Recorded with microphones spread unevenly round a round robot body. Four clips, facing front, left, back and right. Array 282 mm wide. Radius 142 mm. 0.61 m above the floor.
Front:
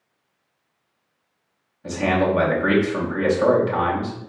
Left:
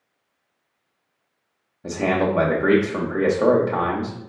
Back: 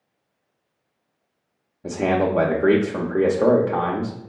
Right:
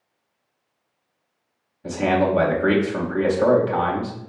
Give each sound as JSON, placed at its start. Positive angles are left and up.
{"t": 1.8, "sound": "a man speaking", "azimuth_deg": 155, "distance_m": 0.9}